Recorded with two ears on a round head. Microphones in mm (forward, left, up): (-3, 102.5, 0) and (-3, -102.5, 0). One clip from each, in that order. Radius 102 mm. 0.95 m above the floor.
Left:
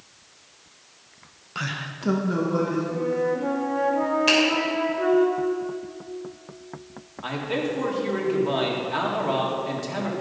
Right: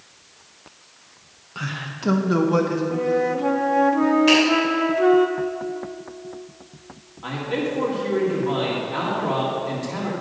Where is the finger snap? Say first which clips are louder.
Right 2 dB; 15° left (ahead or behind), 3 m.